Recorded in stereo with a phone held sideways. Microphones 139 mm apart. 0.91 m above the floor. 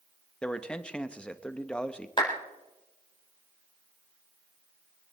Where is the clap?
35° left (ahead or behind), 3.5 m.